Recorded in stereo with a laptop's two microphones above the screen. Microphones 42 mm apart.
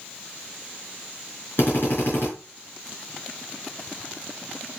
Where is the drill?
60° left (ahead or behind), 5 m.